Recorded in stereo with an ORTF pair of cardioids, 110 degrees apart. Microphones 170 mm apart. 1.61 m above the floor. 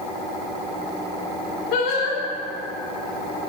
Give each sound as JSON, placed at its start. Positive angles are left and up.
{"t": 1.7, "sound": "singing", "azimuth_deg": 70, "distance_m": 3.0}